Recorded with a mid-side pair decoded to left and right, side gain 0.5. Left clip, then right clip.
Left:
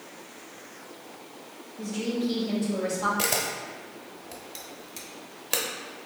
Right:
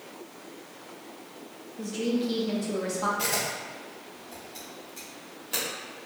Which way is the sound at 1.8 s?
15° right.